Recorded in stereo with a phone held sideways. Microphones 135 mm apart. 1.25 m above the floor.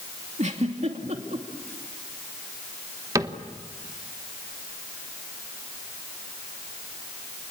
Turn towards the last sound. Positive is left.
turn(degrees=-25)  # may be behind; listen again after turning